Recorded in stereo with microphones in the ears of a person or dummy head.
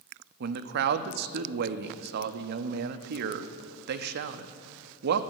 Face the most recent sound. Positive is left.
turn(degrees=-60)  # may be behind; listen again after turning